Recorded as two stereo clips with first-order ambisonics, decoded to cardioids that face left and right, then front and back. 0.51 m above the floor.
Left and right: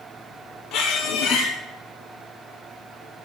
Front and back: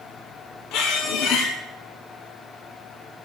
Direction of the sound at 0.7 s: 40° left.